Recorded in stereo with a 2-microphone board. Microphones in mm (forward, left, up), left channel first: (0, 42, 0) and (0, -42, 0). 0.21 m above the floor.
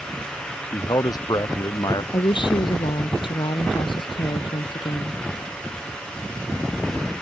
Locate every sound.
0.7 s a man speaking: 55° left (ahead or behind)
2.1 s a woman speaking: 75° left (ahead or behind)